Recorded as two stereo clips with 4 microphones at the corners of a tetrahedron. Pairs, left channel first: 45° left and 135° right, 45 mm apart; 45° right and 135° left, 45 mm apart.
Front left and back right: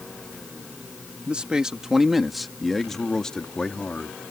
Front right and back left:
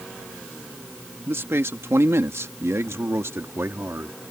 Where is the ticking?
I don't hear ticking.